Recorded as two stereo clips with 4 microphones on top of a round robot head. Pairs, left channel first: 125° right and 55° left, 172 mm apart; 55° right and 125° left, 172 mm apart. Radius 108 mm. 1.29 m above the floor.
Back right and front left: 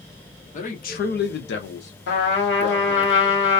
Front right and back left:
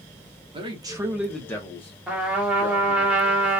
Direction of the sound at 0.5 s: 175° right.